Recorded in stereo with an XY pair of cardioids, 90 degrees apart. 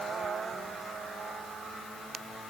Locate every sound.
Only background noise.